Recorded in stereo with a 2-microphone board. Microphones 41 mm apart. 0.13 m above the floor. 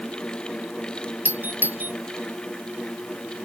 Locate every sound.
1.2 s a doorbell: 55° right (ahead or behind)